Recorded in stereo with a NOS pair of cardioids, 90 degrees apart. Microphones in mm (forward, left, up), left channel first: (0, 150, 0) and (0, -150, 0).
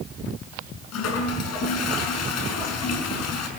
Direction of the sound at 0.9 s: 65° left.